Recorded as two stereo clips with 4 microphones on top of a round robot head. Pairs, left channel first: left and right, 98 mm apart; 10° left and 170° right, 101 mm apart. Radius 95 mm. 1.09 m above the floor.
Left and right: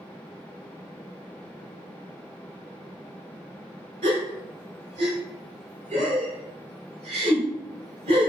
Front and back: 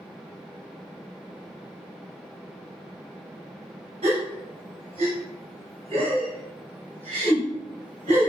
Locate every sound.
4.0 s a gasp: 120° right, 1.3 m